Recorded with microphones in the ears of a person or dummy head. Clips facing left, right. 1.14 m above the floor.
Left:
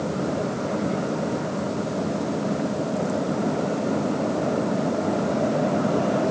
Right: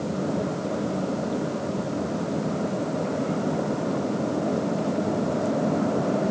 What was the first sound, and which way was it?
Only background noise.